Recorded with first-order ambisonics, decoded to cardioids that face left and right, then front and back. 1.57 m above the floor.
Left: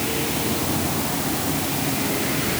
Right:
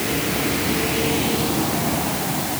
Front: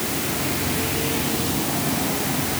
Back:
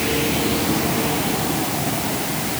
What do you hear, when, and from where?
Only background noise.